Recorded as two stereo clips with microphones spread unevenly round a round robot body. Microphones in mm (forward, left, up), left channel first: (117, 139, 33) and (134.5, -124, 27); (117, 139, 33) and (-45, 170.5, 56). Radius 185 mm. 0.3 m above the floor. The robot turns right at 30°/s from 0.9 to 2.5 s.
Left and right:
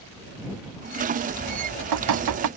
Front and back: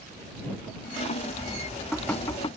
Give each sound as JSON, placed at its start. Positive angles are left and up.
{"t": 1.5, "sound": "dripping", "azimuth_deg": -115}